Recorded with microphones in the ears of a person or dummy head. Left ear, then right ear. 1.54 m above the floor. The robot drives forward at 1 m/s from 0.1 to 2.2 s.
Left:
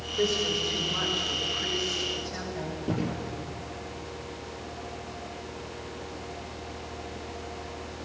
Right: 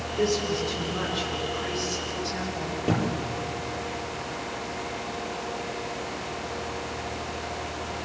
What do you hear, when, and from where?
0.2 s a woman speaking: 25° left (ahead or behind), 6 m; by 2.8 s 15° left (ahead or behind), 8 m
2.9 s a thud: 40° right (ahead or behind), 6 m